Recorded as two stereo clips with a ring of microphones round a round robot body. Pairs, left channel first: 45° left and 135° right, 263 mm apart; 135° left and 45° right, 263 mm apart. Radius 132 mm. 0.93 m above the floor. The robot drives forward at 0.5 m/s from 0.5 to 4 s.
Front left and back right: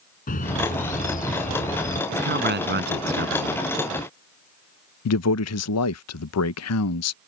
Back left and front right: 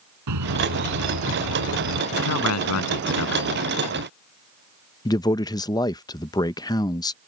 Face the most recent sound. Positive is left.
turn(degrees=60)